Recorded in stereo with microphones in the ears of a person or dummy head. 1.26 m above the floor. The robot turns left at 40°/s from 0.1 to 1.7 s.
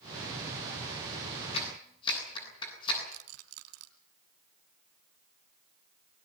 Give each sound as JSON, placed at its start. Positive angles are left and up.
{"t": 1.5, "sound": "a clap", "side_deg": 35, "distance_m": 9.0}
{"t": 3.1, "sound": "a rattle", "side_deg": -65, "distance_m": 2.5}